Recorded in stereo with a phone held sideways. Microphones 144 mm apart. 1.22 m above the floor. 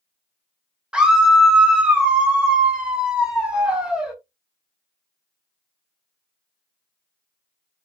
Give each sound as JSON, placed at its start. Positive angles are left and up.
{"t": 0.9, "sound": "a scream", "side_deg": -5, "distance_m": 1.2}